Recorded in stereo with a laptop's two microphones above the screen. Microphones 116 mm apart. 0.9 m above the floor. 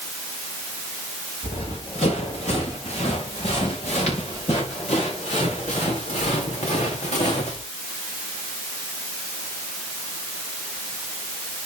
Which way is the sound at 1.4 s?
70° left (ahead or behind).